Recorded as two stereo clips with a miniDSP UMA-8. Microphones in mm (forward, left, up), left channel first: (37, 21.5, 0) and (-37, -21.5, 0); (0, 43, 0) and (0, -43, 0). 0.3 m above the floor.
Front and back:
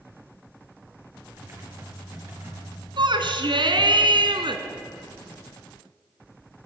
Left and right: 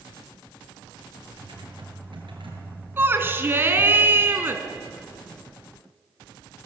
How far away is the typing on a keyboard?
About 6 m.